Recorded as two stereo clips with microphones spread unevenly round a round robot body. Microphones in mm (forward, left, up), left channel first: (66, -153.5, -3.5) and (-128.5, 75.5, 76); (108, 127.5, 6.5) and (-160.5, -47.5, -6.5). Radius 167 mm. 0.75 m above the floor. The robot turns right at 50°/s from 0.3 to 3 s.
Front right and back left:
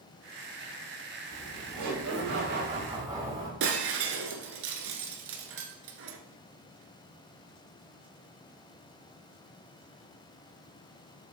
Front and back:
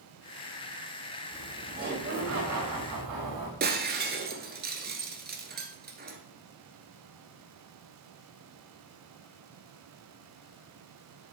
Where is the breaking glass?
155° left, 1.2 m.